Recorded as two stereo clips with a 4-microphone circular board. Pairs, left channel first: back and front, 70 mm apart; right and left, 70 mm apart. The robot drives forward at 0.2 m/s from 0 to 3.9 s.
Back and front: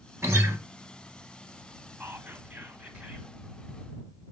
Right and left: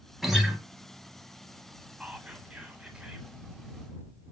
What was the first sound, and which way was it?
A guitar, 10° left.